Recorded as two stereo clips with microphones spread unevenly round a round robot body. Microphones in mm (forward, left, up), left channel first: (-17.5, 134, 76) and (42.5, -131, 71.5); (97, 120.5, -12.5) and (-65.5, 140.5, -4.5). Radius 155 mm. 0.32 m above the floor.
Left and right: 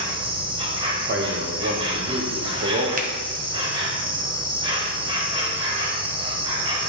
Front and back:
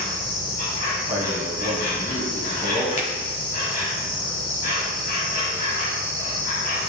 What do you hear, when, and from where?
0.0 s an insect: 5° right, 1.5 m
1.1 s a man speaking: 115° right, 1.5 m
3.0 s a finger snap: 30° right, 1.1 m